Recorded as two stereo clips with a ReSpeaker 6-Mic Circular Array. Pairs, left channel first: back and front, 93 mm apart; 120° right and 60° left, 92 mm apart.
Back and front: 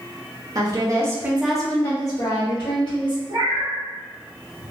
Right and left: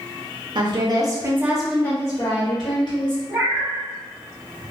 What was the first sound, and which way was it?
A woman speaking, 40° left.